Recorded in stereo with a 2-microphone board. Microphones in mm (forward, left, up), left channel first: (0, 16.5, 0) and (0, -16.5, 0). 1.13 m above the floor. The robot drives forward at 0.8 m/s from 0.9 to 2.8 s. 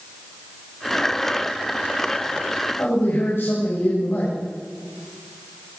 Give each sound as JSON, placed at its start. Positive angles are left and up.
{"t": 2.8, "sound": "a man speaking", "side_deg": 80, "distance_m": 6.0}